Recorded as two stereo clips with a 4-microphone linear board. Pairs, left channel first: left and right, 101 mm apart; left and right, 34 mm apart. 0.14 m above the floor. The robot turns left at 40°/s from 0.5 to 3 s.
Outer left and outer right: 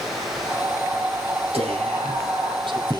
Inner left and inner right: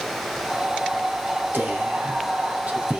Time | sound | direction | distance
1.5 | whispering | 80° right | 4.5 m